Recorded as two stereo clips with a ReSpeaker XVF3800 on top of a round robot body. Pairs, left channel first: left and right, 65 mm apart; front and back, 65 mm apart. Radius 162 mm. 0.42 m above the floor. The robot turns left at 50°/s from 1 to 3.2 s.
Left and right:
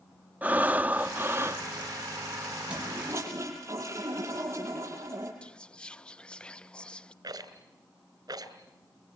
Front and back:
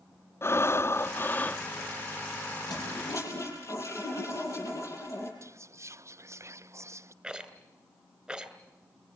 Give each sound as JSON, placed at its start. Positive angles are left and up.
{"t": 0.4, "sound": "breathing", "azimuth_deg": -30, "distance_m": 1.1}
{"t": 2.7, "sound": "a toilet flushing", "azimuth_deg": -15, "distance_m": 6.5}
{"t": 5.4, "sound": "whispering", "azimuth_deg": 160, "distance_m": 0.9}
{"t": 7.2, "sound": "a rattle", "azimuth_deg": -100, "distance_m": 2.5}